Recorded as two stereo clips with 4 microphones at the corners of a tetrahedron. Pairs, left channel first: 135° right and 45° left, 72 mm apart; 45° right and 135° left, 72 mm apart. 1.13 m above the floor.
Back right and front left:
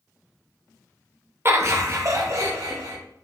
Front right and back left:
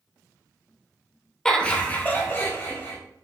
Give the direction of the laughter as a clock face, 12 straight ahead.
11 o'clock.